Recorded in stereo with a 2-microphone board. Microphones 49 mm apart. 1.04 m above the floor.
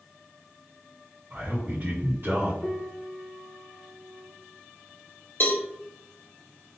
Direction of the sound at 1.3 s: 55° right (ahead or behind).